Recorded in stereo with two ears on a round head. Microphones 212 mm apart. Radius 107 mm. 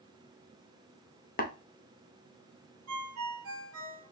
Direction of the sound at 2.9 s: 65° right (ahead or behind).